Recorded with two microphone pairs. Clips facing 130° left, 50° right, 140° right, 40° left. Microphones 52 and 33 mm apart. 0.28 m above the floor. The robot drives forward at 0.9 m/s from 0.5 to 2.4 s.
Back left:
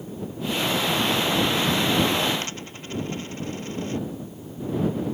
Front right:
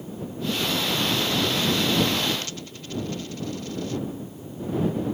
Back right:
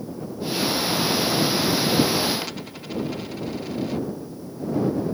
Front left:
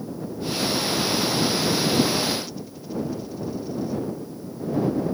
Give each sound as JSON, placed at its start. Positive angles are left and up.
{"t": 2.4, "sound": "a dropped coin", "azimuth_deg": -175}